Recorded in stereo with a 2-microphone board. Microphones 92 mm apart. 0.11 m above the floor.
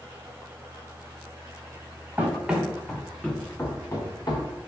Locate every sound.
2.2 s running footsteps: 15° right (ahead or behind), 1.1 m; by 4.6 s 55° left (ahead or behind), 1.2 m